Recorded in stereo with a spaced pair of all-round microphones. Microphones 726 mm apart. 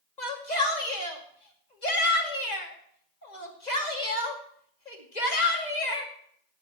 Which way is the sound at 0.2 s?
70° left (ahead or behind).